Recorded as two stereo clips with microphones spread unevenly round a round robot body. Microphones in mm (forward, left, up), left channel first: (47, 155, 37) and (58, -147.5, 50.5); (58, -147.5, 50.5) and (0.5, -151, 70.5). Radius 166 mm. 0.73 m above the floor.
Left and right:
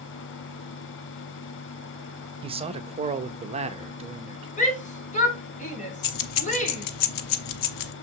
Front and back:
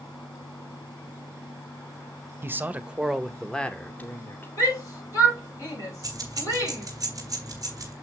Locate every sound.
2.4 s a man speaking: 135° right, 0.9 m; by 4.5 s 15° right, 1.5 m
4.6 s a shout: 25° left, 3.5 m
6.0 s keys jangling: 120° left, 0.9 m